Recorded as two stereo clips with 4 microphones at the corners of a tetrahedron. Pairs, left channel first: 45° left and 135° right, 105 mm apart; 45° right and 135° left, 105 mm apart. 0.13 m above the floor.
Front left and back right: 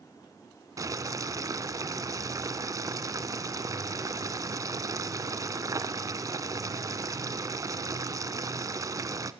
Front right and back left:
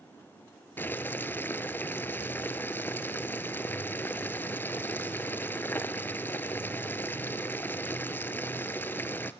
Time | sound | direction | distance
0.8 | boiling | 105° right | 0.8 m